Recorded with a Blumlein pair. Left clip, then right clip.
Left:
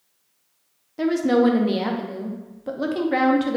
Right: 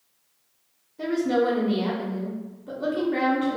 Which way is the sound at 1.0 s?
45° left.